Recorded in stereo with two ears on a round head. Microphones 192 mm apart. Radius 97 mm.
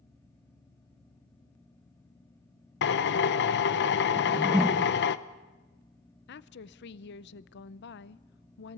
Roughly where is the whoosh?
Centre.